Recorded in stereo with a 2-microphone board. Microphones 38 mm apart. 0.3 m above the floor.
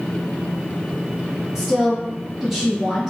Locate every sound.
1.6 s a woman speaking: 10° right (ahead or behind), 2 m